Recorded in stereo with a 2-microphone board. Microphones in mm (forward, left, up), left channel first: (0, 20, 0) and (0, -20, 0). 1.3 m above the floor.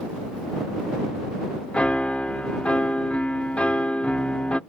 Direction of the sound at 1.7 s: 30° left (ahead or behind).